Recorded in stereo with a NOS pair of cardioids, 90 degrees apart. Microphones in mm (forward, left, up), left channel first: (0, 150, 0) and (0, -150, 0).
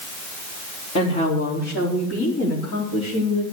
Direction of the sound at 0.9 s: 60° left.